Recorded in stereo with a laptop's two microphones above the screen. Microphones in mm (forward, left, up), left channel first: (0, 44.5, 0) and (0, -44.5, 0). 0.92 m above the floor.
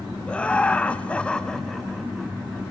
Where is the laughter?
10° left (ahead or behind), 1.0 m; by 2.6 s centre (ahead or behind), 1.2 m.